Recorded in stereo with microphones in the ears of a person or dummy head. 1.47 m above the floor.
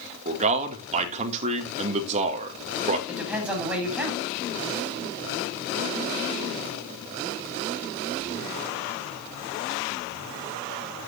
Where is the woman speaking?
5° right (ahead or behind), 8 m.